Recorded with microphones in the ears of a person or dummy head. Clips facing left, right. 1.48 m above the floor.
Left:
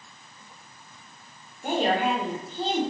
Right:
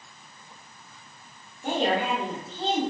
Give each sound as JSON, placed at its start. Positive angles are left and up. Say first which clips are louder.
{"t": 1.6, "sound": "a woman speaking", "louder": "left 1 dB", "side_deg": 5, "distance_m": 0.8}